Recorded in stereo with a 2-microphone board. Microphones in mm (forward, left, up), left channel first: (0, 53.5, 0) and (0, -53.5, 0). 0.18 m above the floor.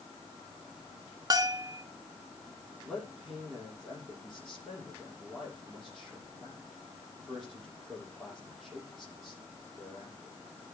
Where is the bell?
40° right (ahead or behind), 0.7 m.